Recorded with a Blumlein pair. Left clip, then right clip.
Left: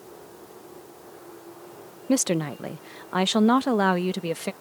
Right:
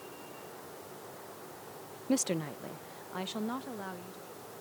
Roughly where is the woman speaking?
Left.